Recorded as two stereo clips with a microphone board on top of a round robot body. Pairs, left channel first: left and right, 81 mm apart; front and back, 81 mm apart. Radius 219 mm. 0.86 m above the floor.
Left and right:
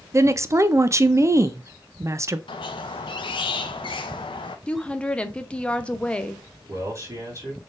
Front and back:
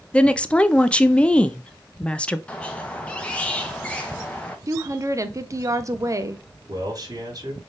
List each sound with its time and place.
0.1 s a woman speaking: 70° right, 0.6 m
2.5 s a squeak: 75° left, 0.5 m
4.7 s a woman speaking: 160° left, 0.8 m
6.7 s a man speaking: 140° right, 2 m